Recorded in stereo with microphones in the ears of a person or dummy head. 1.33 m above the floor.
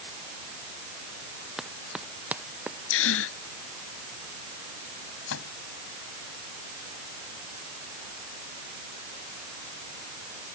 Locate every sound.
1.6 s running footsteps: 5° right (ahead or behind); by 2.8 s 10° right (ahead or behind)
2.9 s a gasp: 75° left (ahead or behind)
5.3 s a microwave: 75° left (ahead or behind)